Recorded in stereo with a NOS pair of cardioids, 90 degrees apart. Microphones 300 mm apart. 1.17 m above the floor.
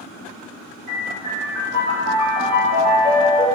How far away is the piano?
About 2.0 m.